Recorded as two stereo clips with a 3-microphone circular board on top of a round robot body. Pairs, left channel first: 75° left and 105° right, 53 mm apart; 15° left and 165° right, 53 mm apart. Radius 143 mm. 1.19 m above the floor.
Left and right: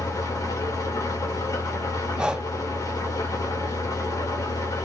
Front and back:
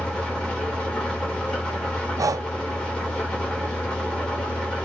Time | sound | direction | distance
0.0 | an engine running | 85° left | 3 m
2.2 | breathing | straight behind | 0.5 m